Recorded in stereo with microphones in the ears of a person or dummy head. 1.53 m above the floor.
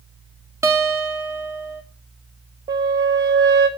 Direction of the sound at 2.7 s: 20° right (ahead or behind).